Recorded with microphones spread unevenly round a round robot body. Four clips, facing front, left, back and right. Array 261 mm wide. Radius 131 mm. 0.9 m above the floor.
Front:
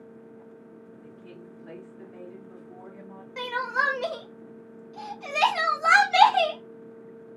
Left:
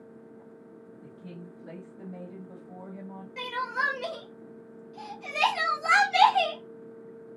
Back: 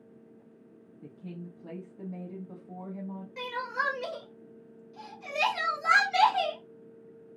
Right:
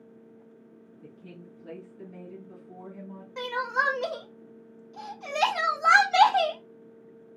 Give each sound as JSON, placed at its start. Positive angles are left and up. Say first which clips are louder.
{"t": 1.0, "sound": "a woman speaking", "louder": "left 1 dB, back 6 dB", "azimuth_deg": 170, "distance_m": 1.5}
{"t": 3.4, "sound": "crying", "louder": "right 3 dB, front 6 dB", "azimuth_deg": -35, "distance_m": 0.9}